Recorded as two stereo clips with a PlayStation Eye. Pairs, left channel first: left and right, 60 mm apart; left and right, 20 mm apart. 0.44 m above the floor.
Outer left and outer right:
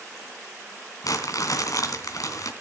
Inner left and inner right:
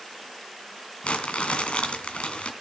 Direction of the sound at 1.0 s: 75° left (ahead or behind).